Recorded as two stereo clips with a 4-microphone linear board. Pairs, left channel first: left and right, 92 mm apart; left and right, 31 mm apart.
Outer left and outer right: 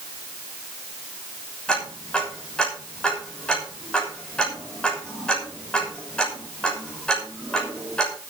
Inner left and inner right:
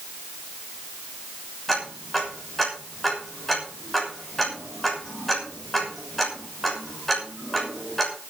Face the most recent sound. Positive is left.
turn(degrees=10)  # may be behind; listen again after turning